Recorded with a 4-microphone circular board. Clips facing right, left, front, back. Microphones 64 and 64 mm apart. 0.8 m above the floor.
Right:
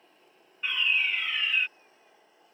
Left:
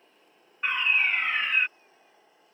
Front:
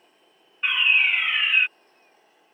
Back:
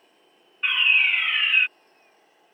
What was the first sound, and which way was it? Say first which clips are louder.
A fire alarm: left 3 dB, even; 85° left.